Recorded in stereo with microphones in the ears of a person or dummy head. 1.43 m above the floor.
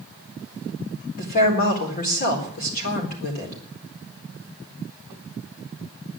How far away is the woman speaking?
About 4 m.